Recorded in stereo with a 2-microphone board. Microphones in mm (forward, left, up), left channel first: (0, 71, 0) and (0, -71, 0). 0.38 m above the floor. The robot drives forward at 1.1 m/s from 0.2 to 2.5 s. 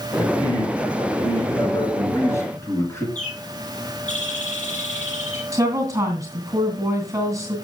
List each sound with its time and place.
0.2 s a man speaking: 35° left (ahead or behind), 3 m; by 3.0 s 20° left (ahead or behind), 5.5 m
3.1 s a bird: 55° left (ahead or behind), 4.5 m
5.5 s a woman speaking: 25° right (ahead or behind), 2.5 m